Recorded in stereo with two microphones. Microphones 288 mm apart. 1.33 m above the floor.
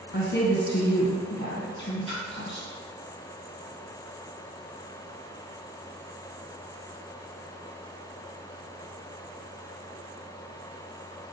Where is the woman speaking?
40° left (ahead or behind), 0.8 m.